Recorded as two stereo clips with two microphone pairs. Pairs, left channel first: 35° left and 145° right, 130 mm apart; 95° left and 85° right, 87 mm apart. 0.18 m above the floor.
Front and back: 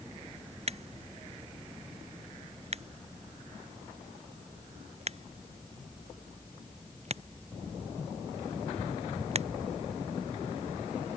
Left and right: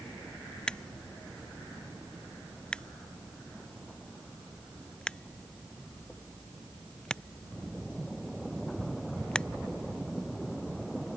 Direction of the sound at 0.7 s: 175° left.